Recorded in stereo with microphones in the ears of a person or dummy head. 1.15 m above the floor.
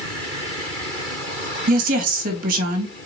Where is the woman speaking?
50° right (ahead or behind), 1.4 m.